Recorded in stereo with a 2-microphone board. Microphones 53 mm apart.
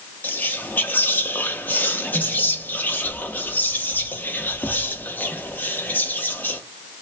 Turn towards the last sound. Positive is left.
turn(degrees=35)  # may be behind; listen again after turning